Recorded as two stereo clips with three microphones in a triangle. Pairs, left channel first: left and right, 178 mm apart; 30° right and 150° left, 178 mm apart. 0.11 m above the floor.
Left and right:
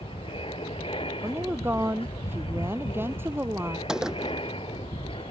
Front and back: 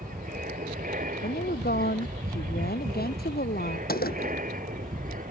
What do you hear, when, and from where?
0.0 s an aircraft: 140° left
1.2 s a woman speaking: 15° right
3.9 s a gunshot: 5° right